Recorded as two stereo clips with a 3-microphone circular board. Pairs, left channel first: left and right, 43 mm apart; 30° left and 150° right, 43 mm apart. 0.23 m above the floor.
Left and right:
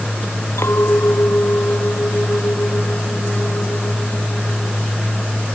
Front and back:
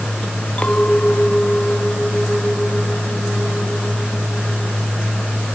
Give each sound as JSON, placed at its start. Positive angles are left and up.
{"t": 0.6, "sound": "a clink", "azimuth_deg": 90}